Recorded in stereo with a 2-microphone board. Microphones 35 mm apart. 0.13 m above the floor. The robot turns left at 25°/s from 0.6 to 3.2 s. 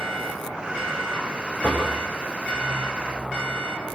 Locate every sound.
1.6 s knocking: 40° left (ahead or behind), 7.5 m; by 1.9 s 50° left (ahead or behind), 7.5 m